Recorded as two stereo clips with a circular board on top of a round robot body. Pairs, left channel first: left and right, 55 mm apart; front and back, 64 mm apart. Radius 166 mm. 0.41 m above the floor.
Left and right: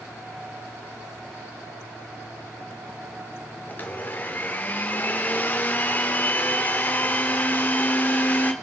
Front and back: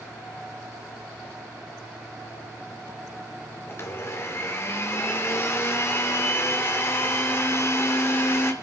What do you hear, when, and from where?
3.7 s a blender: 40° left, 1.9 m